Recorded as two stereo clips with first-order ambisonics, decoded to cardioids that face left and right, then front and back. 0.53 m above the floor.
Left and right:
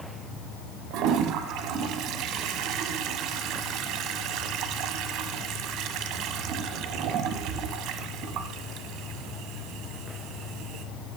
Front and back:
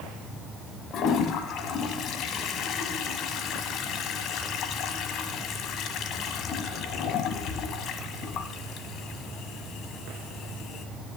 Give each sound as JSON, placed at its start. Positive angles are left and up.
{"t": 0.9, "sound": "a toilet flushing", "azimuth_deg": -50, "distance_m": 1.3}